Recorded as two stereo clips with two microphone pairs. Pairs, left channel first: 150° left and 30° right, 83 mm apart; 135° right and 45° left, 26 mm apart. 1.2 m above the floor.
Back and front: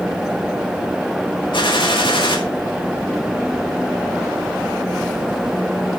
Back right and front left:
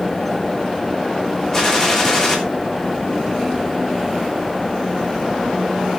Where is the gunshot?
155° left, 3 m.